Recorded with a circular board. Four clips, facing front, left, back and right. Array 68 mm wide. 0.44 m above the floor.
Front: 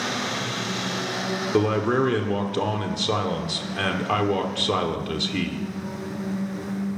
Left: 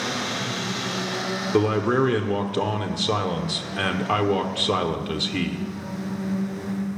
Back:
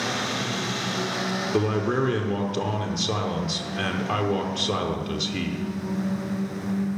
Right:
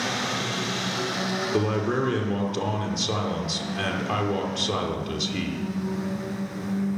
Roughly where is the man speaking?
Ahead left.